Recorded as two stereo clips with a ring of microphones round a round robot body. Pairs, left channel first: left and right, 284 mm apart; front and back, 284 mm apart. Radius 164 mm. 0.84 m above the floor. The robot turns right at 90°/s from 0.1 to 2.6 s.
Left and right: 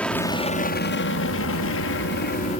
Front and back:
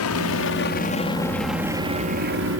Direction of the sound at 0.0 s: 5° left.